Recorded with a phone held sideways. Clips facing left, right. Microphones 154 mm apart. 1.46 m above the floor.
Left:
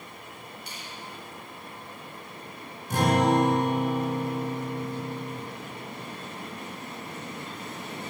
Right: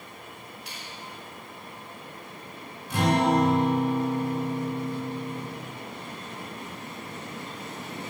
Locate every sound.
0.7 s a finger snap: 80° right, 5 m
2.9 s a guitar: 45° left (ahead or behind), 7.5 m